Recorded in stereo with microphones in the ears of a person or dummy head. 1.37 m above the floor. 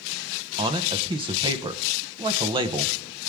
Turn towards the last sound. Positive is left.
turn(degrees=-20)  # may be behind; listen again after turning